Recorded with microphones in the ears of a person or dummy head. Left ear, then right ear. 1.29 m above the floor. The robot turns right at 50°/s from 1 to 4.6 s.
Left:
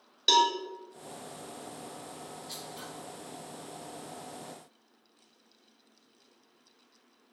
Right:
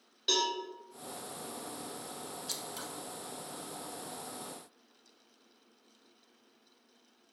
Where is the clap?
No clap in this recording.